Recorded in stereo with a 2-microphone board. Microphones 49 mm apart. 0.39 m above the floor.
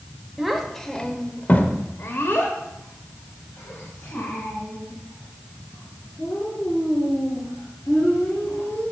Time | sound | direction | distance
0.4 | a child speaking | 5° right (ahead or behind) | 0.8 m